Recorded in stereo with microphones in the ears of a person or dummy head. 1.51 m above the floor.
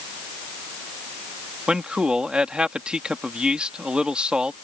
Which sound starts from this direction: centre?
A man speaking, at 1.7 s.